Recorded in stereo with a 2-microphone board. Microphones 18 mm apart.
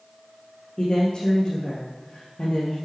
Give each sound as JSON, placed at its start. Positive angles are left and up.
{"t": 0.8, "sound": "a woman speaking", "side_deg": 50, "distance_m": 3.0}